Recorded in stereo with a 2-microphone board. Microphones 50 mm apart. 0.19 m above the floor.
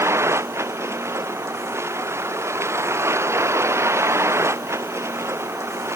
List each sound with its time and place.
0.0 s a vehicle: 60° right (ahead or behind)